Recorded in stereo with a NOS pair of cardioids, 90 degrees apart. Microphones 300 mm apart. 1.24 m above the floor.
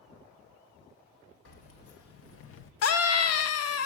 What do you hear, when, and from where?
1.4 s keys jangling: 60° left, 1.4 m; by 2.7 s 65° left, 0.5 m
2.8 s a scream: 60° left, 0.9 m